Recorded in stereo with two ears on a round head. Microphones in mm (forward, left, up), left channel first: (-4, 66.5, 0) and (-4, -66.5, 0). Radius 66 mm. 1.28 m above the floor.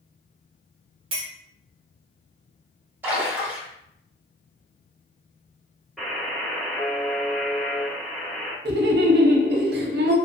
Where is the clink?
35° right (ahead or behind), 0.7 m.